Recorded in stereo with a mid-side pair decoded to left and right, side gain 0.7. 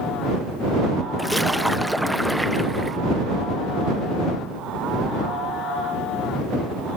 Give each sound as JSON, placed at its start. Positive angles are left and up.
{"t": 1.2, "sound": "a splash", "azimuth_deg": -5}